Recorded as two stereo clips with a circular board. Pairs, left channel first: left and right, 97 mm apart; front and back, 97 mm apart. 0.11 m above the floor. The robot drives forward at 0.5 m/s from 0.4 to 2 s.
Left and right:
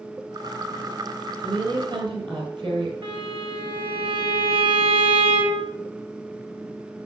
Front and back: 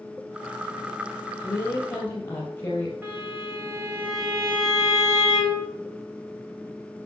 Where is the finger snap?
I don't hear a finger snap.